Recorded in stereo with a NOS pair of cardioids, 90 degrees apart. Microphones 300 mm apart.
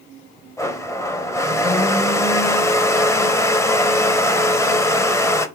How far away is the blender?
About 0.5 m.